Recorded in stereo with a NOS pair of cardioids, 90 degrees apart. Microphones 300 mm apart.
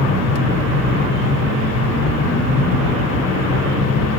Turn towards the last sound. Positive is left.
turn(degrees=60)